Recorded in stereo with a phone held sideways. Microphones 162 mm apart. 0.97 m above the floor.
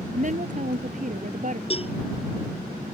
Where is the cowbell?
35° left (ahead or behind).